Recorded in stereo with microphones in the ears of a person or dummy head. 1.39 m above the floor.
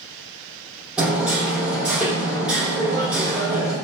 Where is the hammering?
10° right (ahead or behind), 1.1 m.